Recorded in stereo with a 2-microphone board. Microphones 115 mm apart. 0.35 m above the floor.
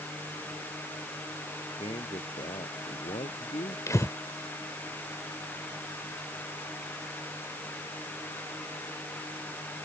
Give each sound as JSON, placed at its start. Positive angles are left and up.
{"t": 1.8, "sound": "a man speaking", "side_deg": 55}
{"t": 3.9, "sound": "breathing", "side_deg": 25}